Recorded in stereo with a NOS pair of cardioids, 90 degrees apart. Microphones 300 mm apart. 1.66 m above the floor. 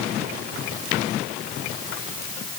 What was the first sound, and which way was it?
Only background noise.